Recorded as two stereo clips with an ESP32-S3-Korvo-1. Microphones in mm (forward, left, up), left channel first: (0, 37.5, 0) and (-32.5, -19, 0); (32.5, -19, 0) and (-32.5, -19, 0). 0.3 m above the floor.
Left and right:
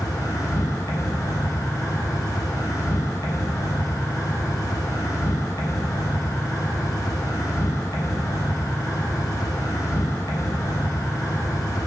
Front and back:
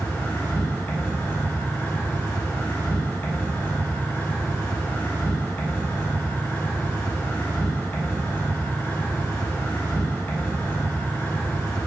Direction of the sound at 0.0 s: 55° left.